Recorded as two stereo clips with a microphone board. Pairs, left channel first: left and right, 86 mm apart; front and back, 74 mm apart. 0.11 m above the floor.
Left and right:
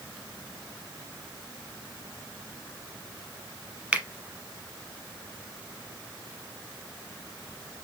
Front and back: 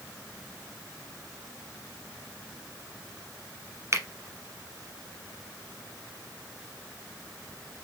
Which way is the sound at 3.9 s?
160° right.